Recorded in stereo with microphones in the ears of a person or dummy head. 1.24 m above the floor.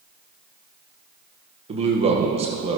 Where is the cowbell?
I don't hear a cowbell.